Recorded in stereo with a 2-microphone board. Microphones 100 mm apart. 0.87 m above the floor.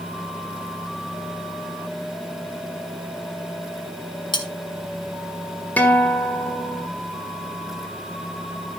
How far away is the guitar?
About 1.3 m.